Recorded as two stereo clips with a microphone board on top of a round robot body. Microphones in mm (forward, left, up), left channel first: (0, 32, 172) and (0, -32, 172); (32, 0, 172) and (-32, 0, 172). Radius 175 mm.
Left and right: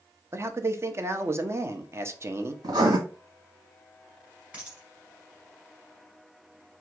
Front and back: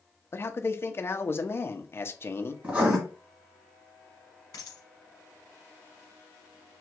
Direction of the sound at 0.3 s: 45° right.